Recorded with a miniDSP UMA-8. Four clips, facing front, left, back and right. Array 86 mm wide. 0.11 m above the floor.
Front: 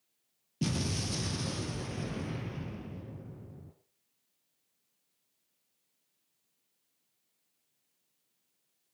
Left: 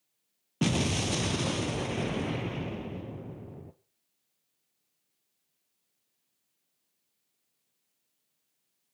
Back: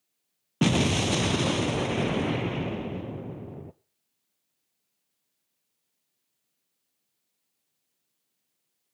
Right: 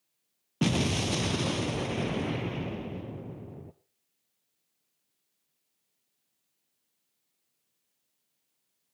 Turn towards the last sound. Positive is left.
turn(degrees=-175)